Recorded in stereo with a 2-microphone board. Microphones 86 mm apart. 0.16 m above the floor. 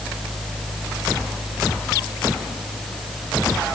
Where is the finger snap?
No finger snap in this recording.